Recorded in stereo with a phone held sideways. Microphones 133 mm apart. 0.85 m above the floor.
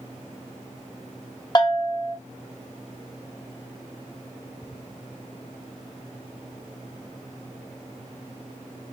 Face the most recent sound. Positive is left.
turn(degrees=30)  # may be behind; listen again after turning